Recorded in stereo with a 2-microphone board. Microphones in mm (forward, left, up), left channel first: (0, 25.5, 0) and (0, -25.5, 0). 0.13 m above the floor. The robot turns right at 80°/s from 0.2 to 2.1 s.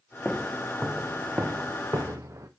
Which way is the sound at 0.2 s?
20° left (ahead or behind).